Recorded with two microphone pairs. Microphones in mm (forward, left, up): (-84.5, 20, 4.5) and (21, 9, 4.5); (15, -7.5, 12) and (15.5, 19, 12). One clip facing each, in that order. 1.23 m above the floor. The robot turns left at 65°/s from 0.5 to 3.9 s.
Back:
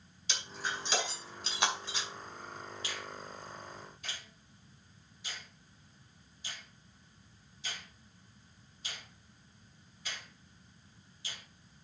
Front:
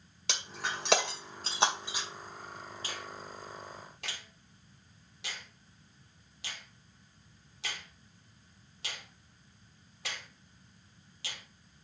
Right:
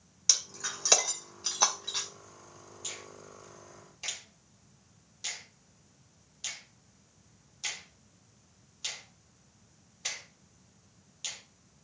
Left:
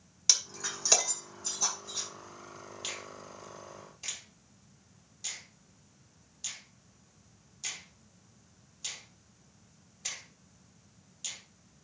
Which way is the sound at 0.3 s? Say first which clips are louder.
Front 2 dB, left 1 dB; 10° left.